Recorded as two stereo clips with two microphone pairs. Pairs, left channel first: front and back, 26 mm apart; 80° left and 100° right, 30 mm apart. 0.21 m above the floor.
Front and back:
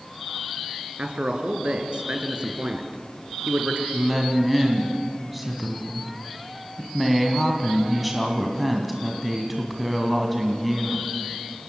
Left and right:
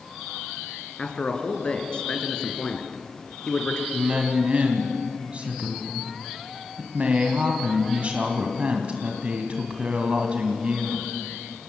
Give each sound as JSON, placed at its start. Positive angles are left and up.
{"t": 1.0, "sound": "a man speaking", "azimuth_deg": 140, "distance_m": 3.0}
{"t": 3.9, "sound": "a woman speaking", "azimuth_deg": -95, "distance_m": 2.0}